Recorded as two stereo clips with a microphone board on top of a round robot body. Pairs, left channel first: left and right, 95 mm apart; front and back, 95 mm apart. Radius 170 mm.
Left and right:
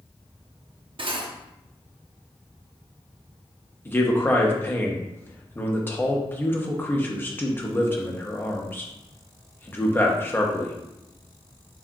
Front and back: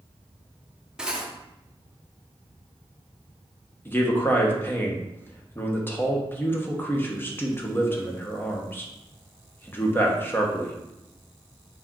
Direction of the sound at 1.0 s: 100° right.